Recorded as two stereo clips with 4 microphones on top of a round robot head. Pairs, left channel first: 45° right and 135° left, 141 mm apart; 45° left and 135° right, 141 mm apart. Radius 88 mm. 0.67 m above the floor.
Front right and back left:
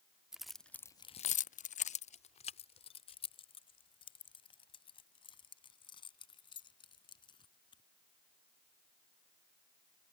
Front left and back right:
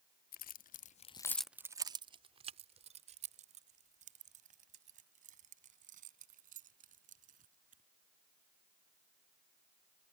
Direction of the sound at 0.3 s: 50° left.